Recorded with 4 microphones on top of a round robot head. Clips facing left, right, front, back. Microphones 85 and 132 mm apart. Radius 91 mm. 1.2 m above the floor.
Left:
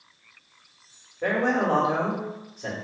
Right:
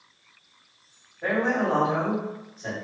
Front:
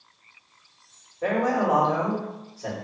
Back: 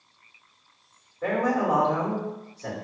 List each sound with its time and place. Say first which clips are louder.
1.2 s a man speaking: left 1 dB, front 1 dB; 80° left, 1.3 m